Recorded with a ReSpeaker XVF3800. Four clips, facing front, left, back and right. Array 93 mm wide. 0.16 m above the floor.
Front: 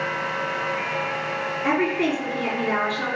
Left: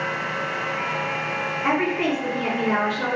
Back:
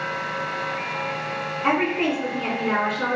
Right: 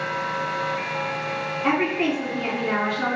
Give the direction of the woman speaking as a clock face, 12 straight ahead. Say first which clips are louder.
Even, back 1 dB; 6 o'clock.